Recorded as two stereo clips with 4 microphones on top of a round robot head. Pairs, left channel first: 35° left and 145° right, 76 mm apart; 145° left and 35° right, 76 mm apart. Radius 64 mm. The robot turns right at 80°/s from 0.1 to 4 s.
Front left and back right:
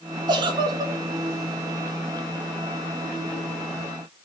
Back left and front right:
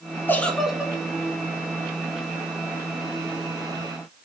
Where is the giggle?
155° right, 0.7 m; by 0.9 s 100° right, 0.7 m.